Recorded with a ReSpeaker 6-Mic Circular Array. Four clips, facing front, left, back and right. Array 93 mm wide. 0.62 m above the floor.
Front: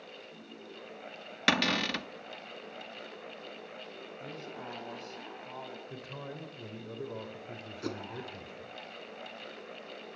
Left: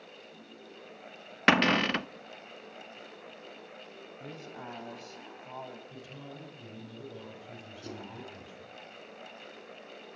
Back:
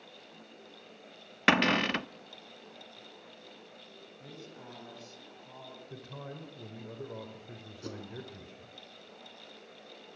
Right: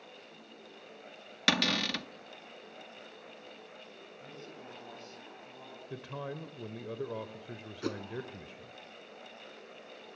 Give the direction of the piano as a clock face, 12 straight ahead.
No piano in this recording.